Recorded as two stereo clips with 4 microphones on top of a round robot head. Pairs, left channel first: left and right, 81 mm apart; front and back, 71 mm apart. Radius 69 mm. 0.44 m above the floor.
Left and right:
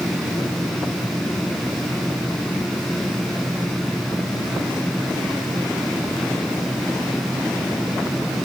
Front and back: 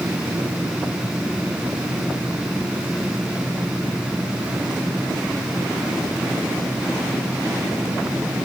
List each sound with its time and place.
Only background noise.